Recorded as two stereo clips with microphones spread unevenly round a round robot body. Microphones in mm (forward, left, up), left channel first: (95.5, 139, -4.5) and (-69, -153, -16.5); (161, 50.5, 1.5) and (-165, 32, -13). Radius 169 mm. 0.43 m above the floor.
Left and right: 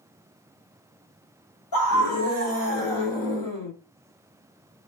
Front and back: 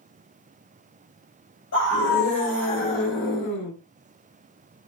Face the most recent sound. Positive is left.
turn(degrees=-10)